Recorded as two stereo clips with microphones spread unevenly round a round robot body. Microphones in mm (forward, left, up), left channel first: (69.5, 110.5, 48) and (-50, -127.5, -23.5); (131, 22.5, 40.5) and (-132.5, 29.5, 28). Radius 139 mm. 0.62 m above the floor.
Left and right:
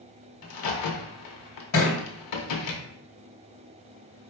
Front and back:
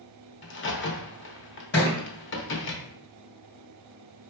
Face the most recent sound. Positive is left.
turn(degrees=45)